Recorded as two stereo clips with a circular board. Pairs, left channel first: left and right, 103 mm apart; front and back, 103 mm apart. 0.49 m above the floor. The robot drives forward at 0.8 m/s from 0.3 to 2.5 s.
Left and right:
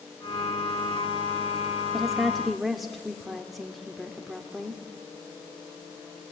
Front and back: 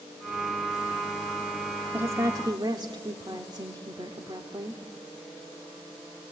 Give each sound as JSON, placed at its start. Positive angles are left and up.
{"t": 1.9, "sound": "a woman speaking", "azimuth_deg": -175, "distance_m": 1.0}